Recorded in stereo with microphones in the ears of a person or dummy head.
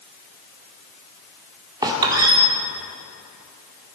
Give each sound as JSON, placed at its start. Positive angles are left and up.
{"t": 1.8, "sound": "a squeak", "side_deg": -20, "distance_m": 1.8}